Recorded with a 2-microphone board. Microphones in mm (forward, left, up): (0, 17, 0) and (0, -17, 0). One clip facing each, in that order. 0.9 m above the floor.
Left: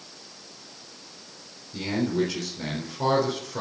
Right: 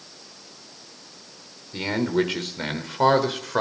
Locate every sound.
1.7 s a man speaking: 45° right (ahead or behind), 3.5 m; by 3.6 s 65° right (ahead or behind), 4 m